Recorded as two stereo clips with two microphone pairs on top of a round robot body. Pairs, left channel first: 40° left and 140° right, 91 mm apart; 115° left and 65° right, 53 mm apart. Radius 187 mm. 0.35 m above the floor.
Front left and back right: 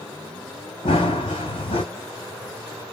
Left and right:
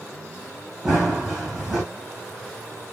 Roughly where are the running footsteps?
Ahead.